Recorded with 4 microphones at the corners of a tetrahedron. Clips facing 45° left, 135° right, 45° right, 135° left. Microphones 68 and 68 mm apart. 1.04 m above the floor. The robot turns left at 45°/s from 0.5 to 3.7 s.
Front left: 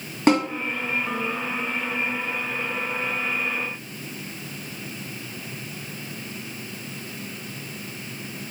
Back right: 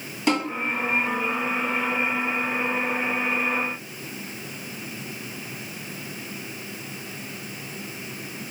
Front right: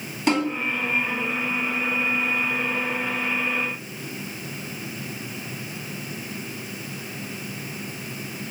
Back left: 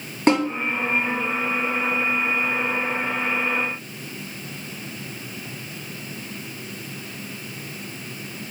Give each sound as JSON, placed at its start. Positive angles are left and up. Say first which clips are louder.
{"t": 0.3, "sound": "a snare drum", "louder": "front left 4 dB, back left 3 dB", "azimuth_deg": 85, "distance_m": 2.5}